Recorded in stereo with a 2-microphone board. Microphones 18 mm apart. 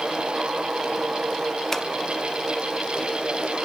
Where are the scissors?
25° left (ahead or behind), 0.6 m.